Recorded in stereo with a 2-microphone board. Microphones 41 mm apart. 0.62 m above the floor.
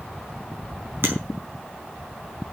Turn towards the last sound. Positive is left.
turn(degrees=-70)  # may be behind; listen again after turning